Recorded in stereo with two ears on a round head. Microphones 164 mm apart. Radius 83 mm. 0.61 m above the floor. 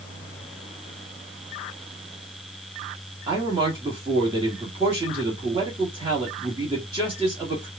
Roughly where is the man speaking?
Right.